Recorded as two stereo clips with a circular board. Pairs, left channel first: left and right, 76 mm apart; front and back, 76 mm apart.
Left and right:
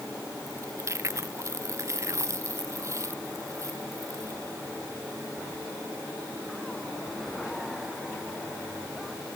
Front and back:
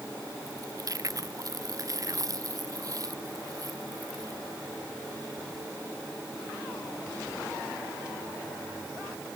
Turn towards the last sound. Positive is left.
turn(degrees=-140)